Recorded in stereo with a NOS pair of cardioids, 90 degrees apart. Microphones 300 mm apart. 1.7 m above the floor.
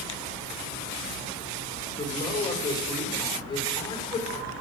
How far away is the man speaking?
About 5 m.